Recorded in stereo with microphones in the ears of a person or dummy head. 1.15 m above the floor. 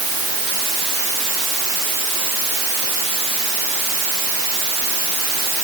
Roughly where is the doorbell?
I don't hear a doorbell.